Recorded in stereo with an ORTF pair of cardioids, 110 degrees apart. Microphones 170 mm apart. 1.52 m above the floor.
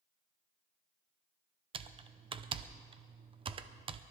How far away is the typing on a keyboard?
About 0.7 m.